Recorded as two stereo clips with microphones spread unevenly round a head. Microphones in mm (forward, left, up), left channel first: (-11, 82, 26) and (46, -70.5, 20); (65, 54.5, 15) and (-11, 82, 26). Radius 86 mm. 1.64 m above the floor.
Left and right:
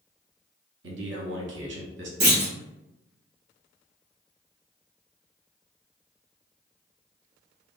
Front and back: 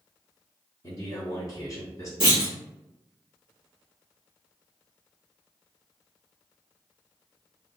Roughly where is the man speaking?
Right.